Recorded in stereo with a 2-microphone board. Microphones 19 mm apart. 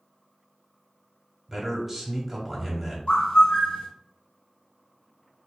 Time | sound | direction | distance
1.5 | a man speaking | 5° right (ahead or behind) | 1.2 m
3.1 | a bird | 70° left (ahead or behind) | 0.9 m